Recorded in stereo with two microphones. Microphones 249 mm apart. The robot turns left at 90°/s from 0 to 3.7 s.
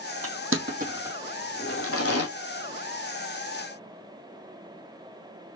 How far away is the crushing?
About 1.3 m.